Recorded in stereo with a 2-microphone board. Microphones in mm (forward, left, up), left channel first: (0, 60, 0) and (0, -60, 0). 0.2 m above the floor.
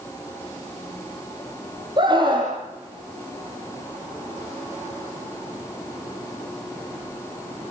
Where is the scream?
35° right (ahead or behind), 5.5 m.